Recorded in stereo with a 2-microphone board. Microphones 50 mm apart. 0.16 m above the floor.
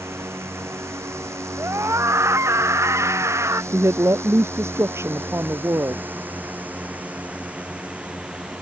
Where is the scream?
75° right (ahead or behind).